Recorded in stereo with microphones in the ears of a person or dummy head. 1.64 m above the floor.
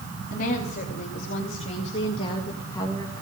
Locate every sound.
0.3 s a woman speaking: 55° left (ahead or behind), 3 m; by 3.2 s 15° left (ahead or behind), 1.8 m